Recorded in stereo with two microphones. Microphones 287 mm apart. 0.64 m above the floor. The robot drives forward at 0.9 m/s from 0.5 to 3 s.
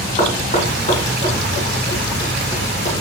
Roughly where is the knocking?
Left.